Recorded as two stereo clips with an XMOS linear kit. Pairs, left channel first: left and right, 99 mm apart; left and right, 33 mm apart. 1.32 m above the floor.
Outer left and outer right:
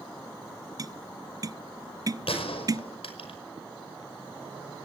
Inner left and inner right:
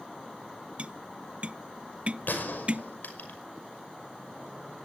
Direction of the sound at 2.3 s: 70° left (ahead or behind).